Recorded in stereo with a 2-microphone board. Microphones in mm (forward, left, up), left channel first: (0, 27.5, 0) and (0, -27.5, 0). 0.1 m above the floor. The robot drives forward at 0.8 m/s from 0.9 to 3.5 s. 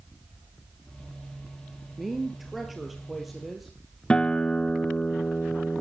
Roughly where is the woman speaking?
Centre.